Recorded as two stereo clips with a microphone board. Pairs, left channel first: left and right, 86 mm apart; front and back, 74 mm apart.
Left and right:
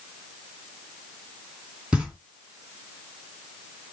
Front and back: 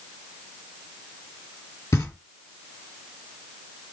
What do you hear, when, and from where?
1.9 s knocking: 20° right, 1.7 m